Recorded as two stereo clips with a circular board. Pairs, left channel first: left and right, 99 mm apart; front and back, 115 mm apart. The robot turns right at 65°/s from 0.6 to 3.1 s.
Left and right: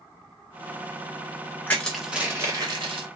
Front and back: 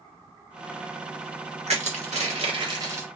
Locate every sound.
1.7 s crushing: 160° left, 1.2 m; by 3.1 s 110° right, 1.2 m